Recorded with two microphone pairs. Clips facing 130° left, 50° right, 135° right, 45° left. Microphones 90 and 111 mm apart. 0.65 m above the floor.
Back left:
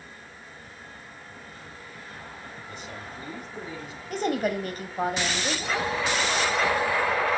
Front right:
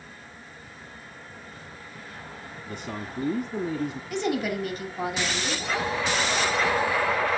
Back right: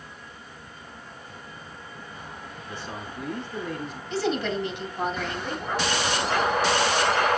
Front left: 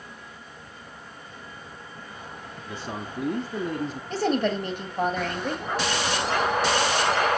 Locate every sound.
2.7 s a man speaking: 10° right, 1.1 m
4.1 s a woman speaking: 85° left, 3 m